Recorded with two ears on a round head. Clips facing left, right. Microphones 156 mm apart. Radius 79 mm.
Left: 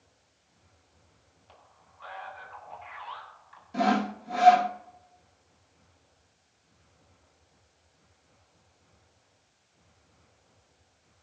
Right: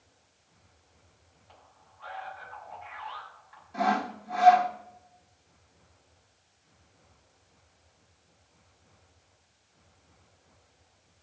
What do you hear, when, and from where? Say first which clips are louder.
1.5 s a man speaking: even; 45° left (ahead or behind), 8.5 m
3.7 s sawing: left 2 dB; 35° left (ahead or behind), 0.9 m